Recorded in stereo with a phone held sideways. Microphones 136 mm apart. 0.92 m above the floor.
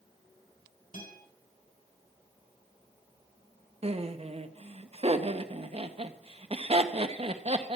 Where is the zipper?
No zipper in this recording.